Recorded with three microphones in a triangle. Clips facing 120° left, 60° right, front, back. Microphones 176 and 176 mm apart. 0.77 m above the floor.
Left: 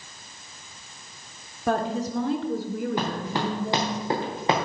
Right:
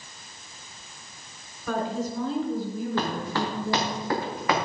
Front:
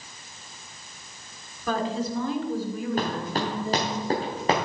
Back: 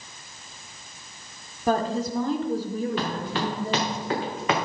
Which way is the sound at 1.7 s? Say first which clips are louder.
Left 3 dB, back 3 dB; 135° left.